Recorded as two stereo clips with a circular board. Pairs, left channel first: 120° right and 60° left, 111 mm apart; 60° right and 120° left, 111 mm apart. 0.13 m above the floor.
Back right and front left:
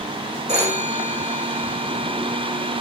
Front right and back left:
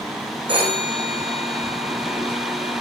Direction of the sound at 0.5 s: 80° left.